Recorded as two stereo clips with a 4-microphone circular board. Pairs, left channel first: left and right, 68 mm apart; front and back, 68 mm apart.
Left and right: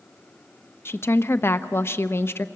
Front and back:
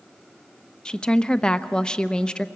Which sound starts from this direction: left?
A woman speaking, at 0.8 s.